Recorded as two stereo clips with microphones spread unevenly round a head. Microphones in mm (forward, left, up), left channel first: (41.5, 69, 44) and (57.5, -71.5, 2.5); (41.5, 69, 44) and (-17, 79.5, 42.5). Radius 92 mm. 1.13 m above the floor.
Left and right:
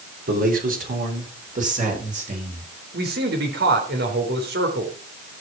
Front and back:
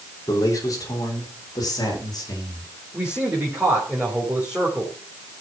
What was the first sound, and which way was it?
A man speaking, 65° right.